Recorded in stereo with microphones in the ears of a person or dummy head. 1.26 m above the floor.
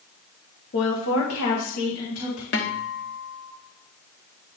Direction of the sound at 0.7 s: 50° left (ahead or behind).